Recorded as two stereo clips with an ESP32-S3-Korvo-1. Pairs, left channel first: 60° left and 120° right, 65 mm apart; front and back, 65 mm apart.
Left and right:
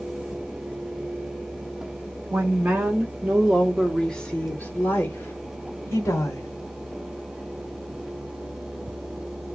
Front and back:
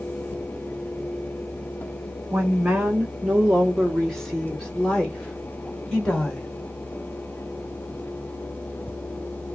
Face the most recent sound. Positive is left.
turn(degrees=65)